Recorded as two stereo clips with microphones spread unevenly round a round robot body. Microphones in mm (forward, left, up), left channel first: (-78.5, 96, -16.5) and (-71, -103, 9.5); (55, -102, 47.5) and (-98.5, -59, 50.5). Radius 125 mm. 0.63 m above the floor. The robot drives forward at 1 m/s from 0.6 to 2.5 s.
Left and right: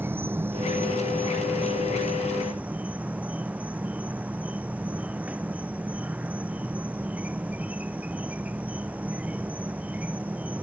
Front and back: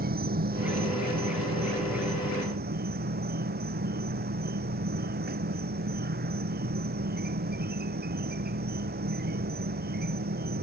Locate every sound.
0.0 s an insect: 165° right; by 10.6 s 170° right